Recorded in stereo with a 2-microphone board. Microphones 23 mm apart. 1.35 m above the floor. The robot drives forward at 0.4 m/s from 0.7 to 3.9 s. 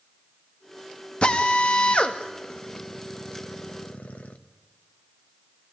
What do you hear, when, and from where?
1.2 s a drill: 45° left (ahead or behind), 1.9 m; by 4.4 s 75° left (ahead or behind), 1.4 m